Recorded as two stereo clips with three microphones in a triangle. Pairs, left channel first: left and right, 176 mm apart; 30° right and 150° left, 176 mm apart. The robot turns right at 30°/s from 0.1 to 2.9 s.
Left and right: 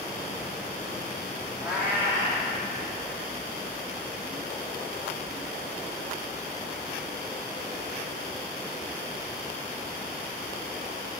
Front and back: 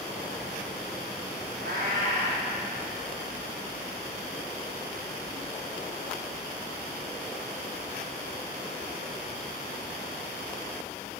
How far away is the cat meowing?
About 1.8 m.